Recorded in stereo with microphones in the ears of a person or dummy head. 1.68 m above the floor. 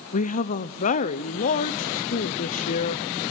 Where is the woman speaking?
45° left (ahead or behind), 0.6 m.